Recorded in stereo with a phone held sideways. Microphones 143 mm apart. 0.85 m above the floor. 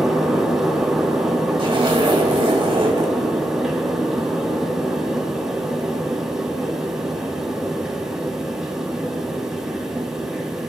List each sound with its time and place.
0.0 s a fan: 5° right (ahead or behind), 2.5 m
1.6 s a zipper: 40° right (ahead or behind), 3 m